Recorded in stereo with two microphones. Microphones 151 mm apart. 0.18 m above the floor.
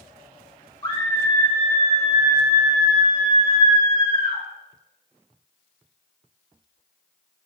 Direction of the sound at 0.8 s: 25° left (ahead or behind).